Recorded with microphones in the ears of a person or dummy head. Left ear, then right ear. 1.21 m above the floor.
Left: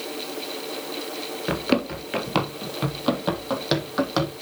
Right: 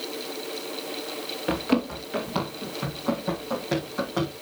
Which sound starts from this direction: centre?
Running footsteps, at 1.5 s.